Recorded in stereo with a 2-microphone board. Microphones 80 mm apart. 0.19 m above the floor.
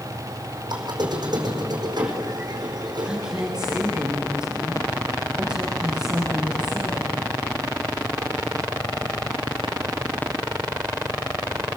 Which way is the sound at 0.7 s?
60° right (ahead or behind).